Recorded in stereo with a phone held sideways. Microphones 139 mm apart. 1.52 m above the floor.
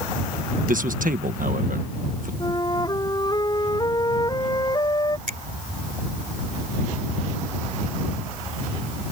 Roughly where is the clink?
I don't hear a clink.